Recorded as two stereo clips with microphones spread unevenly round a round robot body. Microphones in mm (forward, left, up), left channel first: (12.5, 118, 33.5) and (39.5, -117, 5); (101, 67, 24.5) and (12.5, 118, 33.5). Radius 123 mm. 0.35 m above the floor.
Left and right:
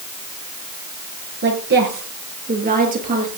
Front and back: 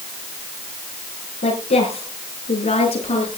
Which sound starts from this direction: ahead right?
A woman speaking, at 1.4 s.